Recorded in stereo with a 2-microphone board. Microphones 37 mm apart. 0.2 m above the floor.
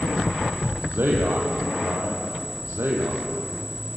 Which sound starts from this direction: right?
A man speaking, at 0.9 s.